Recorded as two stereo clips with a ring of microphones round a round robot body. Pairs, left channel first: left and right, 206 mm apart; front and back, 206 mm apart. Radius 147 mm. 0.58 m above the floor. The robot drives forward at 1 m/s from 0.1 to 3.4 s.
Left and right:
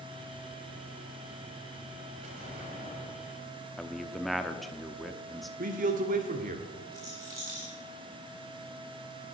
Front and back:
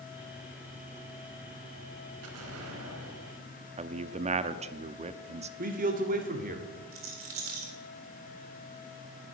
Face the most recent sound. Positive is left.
turn(degrees=-170)